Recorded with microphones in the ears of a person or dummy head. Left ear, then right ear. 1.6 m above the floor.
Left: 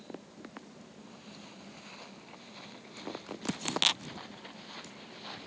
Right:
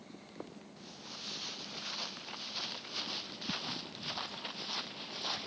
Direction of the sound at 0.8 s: 75° right (ahead or behind).